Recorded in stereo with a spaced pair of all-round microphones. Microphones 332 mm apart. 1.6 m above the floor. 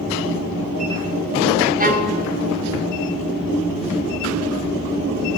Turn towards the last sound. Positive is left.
turn(degrees=-25)  # may be behind; listen again after turning